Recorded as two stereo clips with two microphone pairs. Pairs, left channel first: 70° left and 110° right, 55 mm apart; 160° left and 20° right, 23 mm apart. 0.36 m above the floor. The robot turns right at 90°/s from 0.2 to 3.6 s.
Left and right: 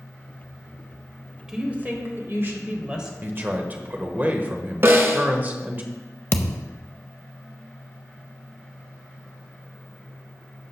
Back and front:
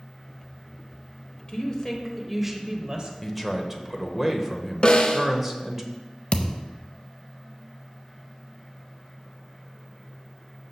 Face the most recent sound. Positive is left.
turn(degrees=125)